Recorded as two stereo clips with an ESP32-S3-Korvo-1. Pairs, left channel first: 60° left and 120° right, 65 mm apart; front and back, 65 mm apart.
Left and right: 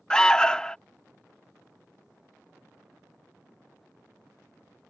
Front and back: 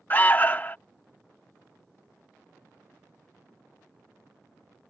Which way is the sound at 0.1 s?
5° right.